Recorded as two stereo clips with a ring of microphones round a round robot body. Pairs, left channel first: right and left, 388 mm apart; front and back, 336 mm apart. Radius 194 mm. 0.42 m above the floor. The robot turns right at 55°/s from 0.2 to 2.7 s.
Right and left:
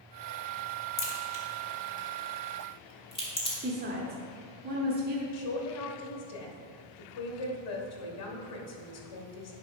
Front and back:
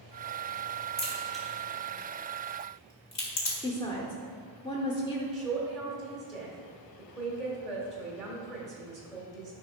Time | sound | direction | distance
1.0 | a crack | 110° right | 1.9 m
3.6 | a woman speaking | 60° left | 1.0 m
5.3 | a man speaking | 90° right | 1.5 m